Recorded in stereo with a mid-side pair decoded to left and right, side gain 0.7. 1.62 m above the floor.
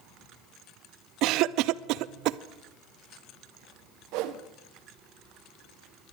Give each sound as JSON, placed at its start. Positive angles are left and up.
{"t": 1.2, "sound": "a cough", "azimuth_deg": -60, "distance_m": 0.6}
{"t": 4.1, "sound": "a whoosh", "azimuth_deg": -65, "distance_m": 1.2}